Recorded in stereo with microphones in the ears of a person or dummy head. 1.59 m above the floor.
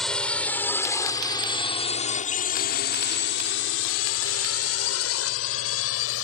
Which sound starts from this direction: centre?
A drone, at 0.0 s.